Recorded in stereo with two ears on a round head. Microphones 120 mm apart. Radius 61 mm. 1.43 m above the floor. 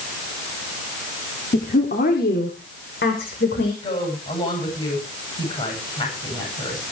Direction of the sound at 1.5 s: 65° left (ahead or behind).